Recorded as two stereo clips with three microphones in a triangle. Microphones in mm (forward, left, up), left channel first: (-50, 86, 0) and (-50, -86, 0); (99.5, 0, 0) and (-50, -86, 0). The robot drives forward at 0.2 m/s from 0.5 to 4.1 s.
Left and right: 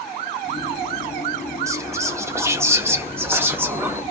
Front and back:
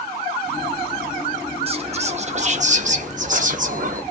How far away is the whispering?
About 0.7 m.